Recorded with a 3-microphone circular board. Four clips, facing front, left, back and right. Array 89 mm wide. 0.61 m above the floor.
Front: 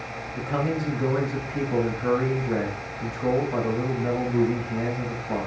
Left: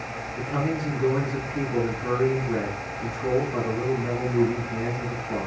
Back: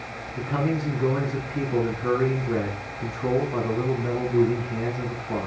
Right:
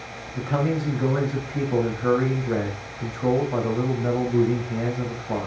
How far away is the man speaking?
About 4 m.